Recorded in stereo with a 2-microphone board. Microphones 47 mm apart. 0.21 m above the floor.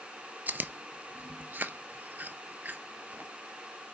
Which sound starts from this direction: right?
Chewing, at 0.5 s.